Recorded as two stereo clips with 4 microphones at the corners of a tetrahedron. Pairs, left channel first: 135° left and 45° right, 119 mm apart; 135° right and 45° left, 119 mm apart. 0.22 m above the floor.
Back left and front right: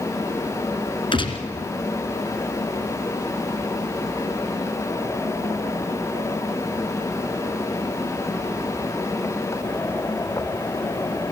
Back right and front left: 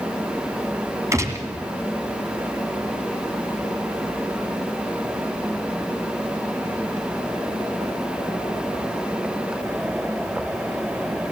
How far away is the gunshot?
About 1.6 m.